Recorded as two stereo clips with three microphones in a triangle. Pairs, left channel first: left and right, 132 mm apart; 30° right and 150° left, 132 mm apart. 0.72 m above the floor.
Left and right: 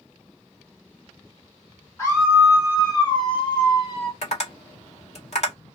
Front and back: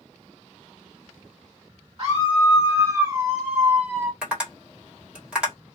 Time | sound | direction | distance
2.0 | a scream | 155° left | 1.3 m
4.2 | tapping | 70° left | 1.6 m